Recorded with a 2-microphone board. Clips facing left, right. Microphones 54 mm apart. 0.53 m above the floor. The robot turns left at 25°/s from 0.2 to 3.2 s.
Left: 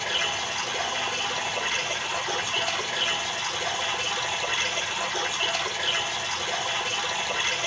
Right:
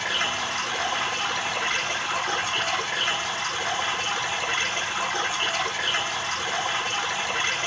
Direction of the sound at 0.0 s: 60° right.